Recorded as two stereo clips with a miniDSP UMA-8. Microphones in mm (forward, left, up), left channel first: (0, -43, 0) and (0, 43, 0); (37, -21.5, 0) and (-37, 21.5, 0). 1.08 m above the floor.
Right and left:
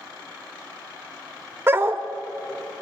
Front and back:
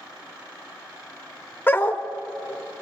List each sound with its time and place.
1.7 s a dog barking: 35° left, 0.9 m